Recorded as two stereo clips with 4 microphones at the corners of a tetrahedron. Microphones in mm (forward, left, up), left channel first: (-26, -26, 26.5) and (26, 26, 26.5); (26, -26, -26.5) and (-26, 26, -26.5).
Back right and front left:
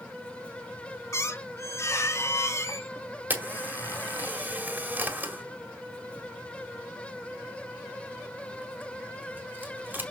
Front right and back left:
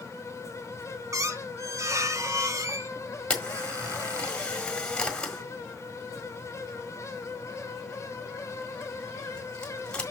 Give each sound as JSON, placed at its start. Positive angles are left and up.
{"t": 1.1, "sound": "a squeak", "azimuth_deg": 175, "distance_m": 0.9}
{"t": 3.3, "sound": "a camera shutter", "azimuth_deg": 15, "distance_m": 1.7}